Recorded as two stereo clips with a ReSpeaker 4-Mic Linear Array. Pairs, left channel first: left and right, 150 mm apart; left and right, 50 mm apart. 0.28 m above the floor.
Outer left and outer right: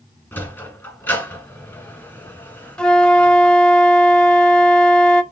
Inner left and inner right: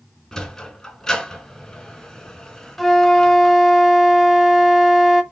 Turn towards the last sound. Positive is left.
turn(degrees=5)  # may be behind; listen again after turning